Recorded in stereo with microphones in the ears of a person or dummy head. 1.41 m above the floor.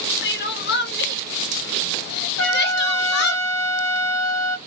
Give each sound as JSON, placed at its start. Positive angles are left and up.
{"t": 0.2, "sound": "crying", "side_deg": 50, "distance_m": 0.6}
{"t": 2.4, "sound": "a trumpet", "side_deg": 75, "distance_m": 0.6}